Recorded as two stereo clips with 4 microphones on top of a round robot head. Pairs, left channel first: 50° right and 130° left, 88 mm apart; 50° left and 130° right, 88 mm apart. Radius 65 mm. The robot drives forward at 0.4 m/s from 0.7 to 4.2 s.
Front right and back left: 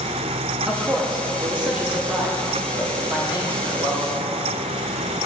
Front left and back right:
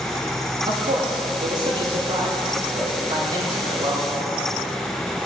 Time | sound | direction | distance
0.7 | a man speaking | 145° right | 1.8 m